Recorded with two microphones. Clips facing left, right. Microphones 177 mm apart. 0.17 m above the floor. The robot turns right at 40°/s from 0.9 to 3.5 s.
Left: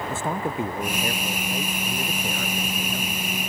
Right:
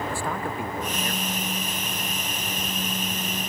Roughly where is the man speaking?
Ahead.